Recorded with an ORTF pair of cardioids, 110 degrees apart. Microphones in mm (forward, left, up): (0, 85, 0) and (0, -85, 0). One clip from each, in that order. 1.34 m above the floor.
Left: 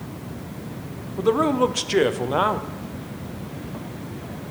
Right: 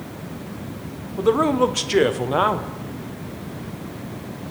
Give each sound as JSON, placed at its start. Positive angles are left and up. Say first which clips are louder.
{"t": 1.2, "sound": "a man speaking", "louder": "right 2 dB", "azimuth_deg": 0, "distance_m": 0.6}